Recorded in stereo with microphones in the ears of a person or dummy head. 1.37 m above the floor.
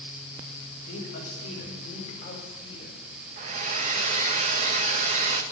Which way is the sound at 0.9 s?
50° left (ahead or behind).